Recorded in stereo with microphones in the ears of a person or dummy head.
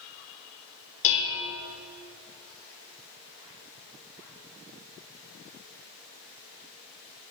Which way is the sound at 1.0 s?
65° left (ahead or behind).